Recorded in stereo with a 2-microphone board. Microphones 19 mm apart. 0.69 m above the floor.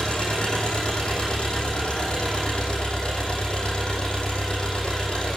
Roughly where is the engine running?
Left.